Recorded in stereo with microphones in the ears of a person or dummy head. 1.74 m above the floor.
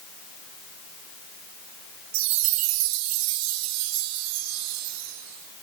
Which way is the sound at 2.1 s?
65° right (ahead or behind).